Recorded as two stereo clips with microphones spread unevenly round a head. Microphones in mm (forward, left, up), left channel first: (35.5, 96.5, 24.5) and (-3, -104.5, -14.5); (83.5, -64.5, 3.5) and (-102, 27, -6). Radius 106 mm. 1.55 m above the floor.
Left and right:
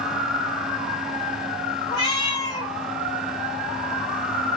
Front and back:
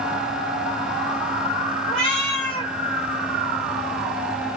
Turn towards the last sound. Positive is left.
turn(degrees=50)